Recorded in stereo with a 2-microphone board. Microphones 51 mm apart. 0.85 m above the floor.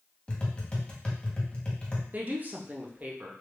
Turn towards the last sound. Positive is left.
turn(degrees=-40)  # may be behind; listen again after turning